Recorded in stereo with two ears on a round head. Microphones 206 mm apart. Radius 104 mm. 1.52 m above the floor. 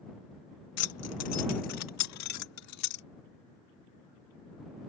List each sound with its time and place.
0.8 s keys jangling: 75° left (ahead or behind); by 3.0 s 80° left